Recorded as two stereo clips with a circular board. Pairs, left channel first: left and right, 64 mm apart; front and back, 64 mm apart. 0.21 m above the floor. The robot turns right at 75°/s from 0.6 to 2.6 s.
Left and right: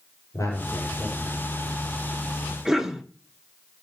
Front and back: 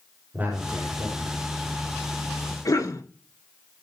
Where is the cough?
10° right, 3 m.